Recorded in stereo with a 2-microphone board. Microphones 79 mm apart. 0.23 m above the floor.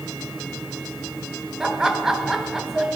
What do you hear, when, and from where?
1.6 s laughter: 5° right (ahead or behind), 1.4 m